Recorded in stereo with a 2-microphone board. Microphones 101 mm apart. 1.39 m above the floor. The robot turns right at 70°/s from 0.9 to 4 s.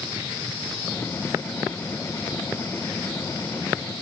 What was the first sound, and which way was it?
Only background noise.